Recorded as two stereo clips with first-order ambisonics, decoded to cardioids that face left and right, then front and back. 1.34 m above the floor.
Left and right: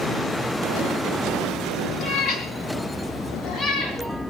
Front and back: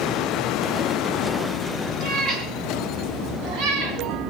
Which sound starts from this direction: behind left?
A cat meowing, at 2.0 s.